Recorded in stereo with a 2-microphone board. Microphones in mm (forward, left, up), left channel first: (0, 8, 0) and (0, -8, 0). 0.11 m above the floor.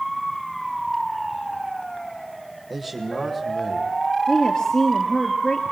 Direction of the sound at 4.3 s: 50° left (ahead or behind).